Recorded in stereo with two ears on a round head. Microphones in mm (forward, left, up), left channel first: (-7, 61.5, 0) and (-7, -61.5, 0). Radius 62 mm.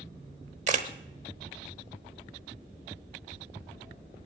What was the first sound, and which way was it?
A camera shutter, 55° right (ahead or behind).